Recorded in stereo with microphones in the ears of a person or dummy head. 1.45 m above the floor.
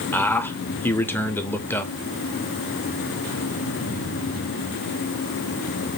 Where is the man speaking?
10° left (ahead or behind), 0.6 m.